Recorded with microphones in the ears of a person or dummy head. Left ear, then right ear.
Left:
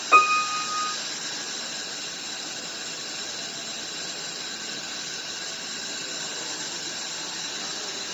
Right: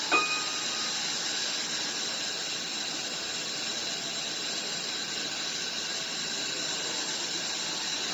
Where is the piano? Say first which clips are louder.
Left 10 dB; 25° left (ahead or behind), 1.5 m.